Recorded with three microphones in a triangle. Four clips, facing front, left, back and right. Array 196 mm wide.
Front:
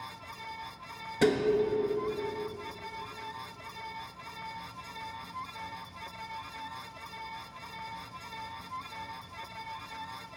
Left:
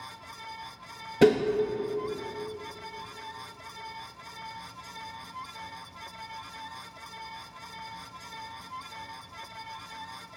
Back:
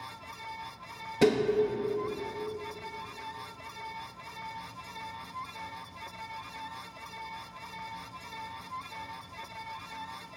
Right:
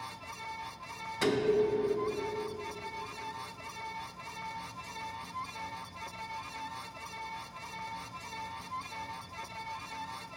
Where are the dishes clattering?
100° left, 1.1 m.